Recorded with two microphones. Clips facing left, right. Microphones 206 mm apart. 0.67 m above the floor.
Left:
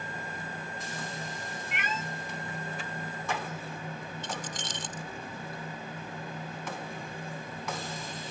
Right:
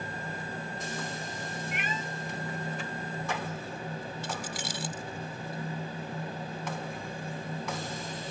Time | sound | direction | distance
1.7 | a cat meowing | 80° left | ?
4.2 | keys jangling | 10° right (ahead or behind) | ?